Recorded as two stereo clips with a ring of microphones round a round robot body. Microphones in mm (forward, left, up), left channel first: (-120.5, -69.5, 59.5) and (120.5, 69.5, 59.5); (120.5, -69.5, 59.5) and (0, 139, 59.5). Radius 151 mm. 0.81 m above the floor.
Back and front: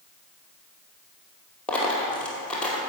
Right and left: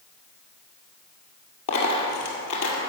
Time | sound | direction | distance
1.7 | a dropped coin | 65° right | 1.9 m